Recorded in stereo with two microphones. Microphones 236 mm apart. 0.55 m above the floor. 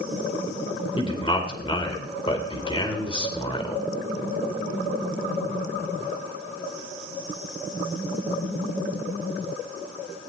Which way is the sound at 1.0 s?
20° left (ahead or behind).